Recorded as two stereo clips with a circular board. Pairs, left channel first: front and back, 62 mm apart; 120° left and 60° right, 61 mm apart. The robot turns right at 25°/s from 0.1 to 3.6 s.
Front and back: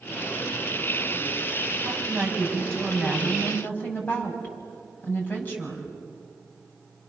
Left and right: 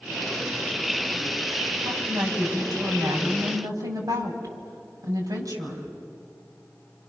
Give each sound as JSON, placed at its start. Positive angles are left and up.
{"t": 1.8, "sound": "a woman speaking", "azimuth_deg": -105, "distance_m": 5.5}